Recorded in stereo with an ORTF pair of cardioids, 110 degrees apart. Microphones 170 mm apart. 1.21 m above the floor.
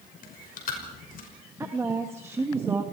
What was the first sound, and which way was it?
Chewing, 55° left.